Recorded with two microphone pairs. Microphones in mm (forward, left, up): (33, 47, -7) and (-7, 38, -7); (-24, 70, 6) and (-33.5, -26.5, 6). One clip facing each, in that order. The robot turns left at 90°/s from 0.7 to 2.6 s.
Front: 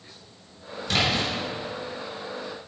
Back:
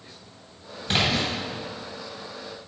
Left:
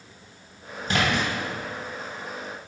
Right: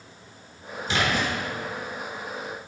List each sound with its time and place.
0.9 s a splash: 130° left, 2.5 m; by 1.3 s 90° left, 2.5 m